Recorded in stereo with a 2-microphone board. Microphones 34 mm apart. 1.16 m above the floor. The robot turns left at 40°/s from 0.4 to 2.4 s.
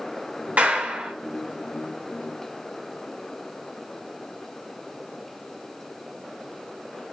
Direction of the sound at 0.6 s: 50° right (ahead or behind).